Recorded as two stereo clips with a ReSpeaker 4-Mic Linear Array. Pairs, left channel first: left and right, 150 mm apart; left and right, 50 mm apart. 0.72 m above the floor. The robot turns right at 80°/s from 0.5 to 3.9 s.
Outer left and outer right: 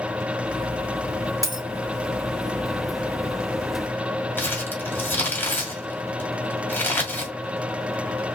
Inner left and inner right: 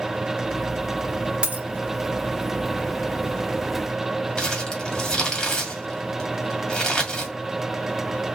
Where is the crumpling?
15° left (ahead or behind), 1.9 m.